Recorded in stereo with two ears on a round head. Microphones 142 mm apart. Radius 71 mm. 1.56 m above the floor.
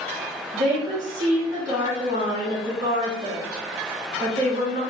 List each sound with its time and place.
0.5 s a woman speaking: 50° right (ahead or behind), 2.5 m